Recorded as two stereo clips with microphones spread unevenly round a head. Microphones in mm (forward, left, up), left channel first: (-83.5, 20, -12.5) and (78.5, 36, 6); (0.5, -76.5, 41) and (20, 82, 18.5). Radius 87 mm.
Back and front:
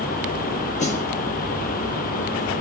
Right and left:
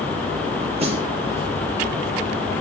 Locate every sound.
0.8 s a snare drum: 140° left, 5.5 m